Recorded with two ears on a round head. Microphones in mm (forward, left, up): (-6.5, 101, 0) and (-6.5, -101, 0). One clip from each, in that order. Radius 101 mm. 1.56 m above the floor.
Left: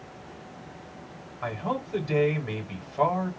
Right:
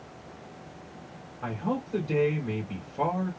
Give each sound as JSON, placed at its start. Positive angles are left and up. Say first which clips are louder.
{"t": 1.4, "sound": "a man speaking", "louder": "left 2 dB", "side_deg": 55, "distance_m": 2.5}